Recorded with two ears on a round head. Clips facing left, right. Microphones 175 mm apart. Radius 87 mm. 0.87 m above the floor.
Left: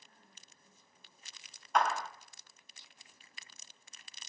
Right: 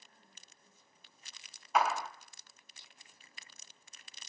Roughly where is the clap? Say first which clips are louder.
Even; centre.